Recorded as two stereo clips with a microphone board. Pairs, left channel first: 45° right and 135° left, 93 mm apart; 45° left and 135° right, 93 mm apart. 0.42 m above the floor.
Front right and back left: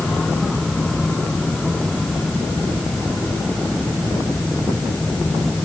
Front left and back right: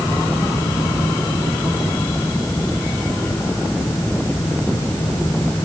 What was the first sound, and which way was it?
Only background noise.